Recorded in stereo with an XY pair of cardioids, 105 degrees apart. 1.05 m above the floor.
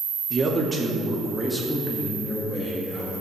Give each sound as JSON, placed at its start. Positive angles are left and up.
{"t": 0.3, "sound": "a man speaking", "azimuth_deg": -30, "distance_m": 2.0}